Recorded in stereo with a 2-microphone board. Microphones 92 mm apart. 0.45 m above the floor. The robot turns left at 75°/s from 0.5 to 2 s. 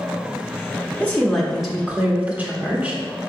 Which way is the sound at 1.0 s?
15° left (ahead or behind).